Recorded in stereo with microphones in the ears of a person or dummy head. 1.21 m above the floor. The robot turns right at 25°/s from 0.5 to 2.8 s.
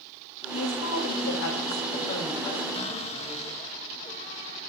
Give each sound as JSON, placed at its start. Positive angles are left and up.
{"t": 0.5, "sound": "a woman speaking", "azimuth_deg": 100, "distance_m": 1.9}
{"t": 2.7, "sound": "a cupboard door", "side_deg": 40, "distance_m": 1.3}